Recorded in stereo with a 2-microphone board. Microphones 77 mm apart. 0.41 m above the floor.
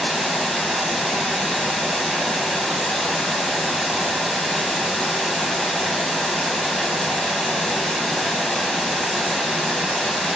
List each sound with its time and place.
0.0 s running water: 5° left (ahead or behind), 0.8 m